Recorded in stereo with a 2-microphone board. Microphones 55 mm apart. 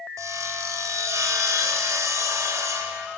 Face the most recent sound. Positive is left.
turn(degrees=-75)  # may be behind; listen again after turning